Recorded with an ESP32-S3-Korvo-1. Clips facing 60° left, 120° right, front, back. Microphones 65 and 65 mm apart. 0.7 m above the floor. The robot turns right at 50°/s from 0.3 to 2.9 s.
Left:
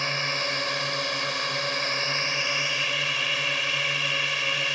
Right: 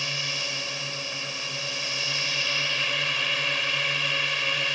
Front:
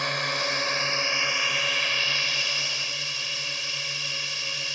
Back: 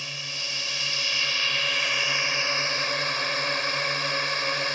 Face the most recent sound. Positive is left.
turn(degrees=150)